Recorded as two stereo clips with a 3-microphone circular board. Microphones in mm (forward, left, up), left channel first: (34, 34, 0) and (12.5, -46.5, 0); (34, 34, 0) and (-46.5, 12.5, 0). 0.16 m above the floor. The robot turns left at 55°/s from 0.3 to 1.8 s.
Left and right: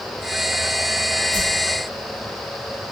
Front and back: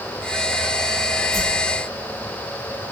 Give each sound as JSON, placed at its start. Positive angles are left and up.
{"t": 1.3, "sound": "a whoosh", "azimuth_deg": 110, "distance_m": 4.0}